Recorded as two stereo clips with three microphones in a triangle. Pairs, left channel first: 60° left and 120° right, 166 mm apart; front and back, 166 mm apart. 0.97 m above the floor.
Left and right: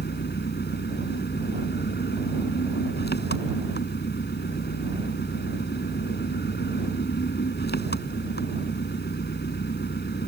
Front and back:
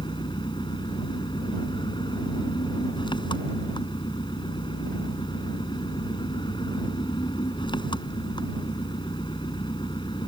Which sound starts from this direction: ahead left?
An engine running, at 0.0 s.